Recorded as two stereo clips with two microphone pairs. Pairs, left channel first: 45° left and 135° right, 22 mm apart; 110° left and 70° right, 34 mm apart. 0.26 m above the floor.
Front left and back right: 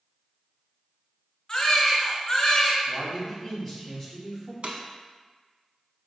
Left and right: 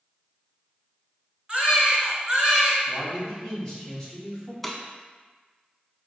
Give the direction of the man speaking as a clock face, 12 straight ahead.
6 o'clock.